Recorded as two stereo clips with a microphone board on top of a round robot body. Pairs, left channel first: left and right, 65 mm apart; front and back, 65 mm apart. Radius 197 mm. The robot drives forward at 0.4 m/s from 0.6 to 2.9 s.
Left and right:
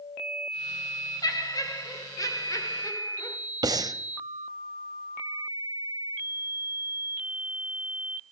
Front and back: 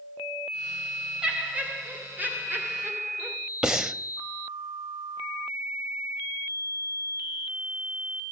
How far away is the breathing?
About 0.8 m.